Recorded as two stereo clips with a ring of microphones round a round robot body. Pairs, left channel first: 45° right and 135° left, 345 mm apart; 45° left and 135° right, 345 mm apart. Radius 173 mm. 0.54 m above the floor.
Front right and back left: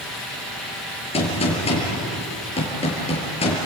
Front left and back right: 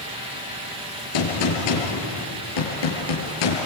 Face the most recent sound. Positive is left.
turn(degrees=30)